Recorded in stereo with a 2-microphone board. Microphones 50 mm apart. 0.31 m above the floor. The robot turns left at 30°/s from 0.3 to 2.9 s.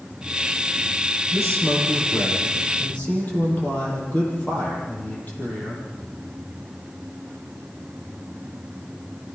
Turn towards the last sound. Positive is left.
turn(degrees=35)